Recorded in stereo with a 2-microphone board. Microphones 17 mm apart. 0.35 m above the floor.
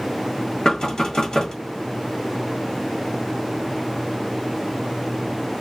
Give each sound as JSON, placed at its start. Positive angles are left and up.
{"t": 0.7, "sound": "knocking", "side_deg": 55, "distance_m": 1.5}